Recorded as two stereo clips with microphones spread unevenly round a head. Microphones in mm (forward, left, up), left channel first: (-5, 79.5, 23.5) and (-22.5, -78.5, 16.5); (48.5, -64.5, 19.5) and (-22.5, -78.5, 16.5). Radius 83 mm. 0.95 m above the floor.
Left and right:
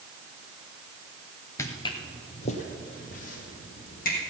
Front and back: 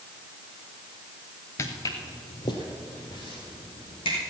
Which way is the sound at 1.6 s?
25° left.